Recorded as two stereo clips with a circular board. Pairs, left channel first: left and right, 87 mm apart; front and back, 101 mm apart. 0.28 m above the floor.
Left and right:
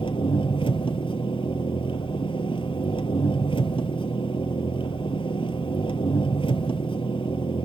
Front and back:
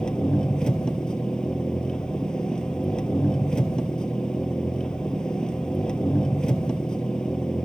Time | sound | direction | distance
0.0 | an engine running | 85° left | 1.6 m